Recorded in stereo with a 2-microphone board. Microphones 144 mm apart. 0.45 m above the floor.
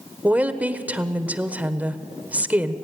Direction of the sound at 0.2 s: 10° right (ahead or behind).